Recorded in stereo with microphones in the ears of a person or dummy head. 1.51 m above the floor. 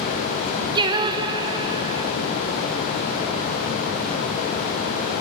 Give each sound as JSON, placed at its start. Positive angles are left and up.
{"t": 0.8, "sound": "singing", "side_deg": -25, "distance_m": 0.6}